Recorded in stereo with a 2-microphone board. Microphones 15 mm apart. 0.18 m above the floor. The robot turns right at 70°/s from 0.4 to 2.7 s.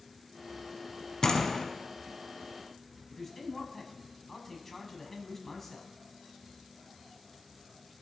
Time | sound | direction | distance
1.2 | a door slam | 85° left | 0.9 m
3.1 | a man speaking | 15° left (ahead or behind) | 1.0 m